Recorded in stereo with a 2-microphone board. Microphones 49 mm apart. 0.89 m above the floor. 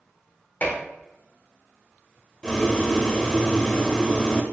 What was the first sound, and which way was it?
Dishes clattering, 40° left (ahead or behind).